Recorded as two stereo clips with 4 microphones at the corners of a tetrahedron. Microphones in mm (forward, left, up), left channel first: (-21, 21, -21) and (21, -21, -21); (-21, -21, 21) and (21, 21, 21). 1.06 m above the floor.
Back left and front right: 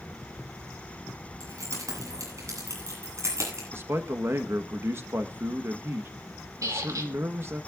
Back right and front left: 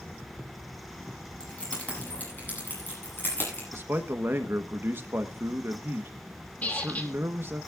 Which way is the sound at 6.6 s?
70° right.